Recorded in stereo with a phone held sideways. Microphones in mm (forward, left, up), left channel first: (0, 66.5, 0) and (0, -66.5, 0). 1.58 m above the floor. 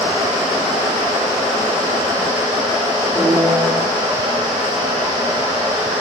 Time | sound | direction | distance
0.0 | a fan | 30° right (ahead or behind) | 1.1 m
3.1 | a piano | 15° right (ahead or behind) | 1.5 m